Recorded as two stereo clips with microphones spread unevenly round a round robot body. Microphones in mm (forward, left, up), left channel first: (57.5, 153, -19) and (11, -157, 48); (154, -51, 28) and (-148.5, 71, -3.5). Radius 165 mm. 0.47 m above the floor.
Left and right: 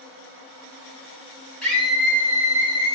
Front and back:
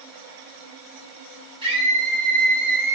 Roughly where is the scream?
Behind left.